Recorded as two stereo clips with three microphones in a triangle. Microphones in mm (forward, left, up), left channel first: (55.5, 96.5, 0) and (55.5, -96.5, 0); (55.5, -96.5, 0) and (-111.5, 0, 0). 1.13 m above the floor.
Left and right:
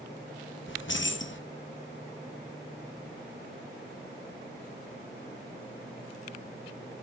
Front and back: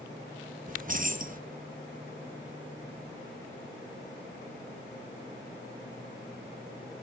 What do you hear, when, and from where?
0.7 s keys jangling: 105° left, 0.8 m